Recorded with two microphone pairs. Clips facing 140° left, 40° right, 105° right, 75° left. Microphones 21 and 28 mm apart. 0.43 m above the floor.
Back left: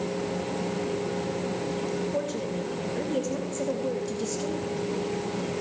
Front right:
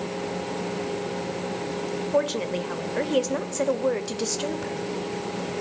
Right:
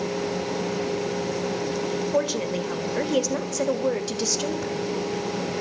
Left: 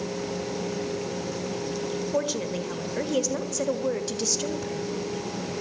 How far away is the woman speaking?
About 2 m.